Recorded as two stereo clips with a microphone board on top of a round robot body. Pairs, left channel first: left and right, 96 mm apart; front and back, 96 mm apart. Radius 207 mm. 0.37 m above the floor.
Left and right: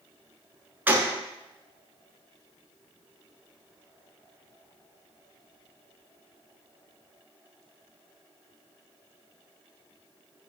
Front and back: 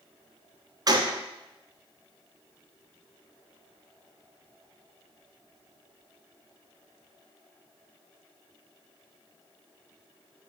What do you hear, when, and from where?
0.9 s a gunshot: 155° right, 0.7 m